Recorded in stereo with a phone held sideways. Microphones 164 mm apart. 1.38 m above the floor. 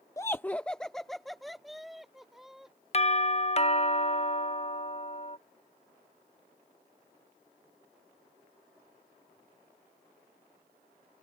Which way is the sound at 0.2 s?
20° left (ahead or behind).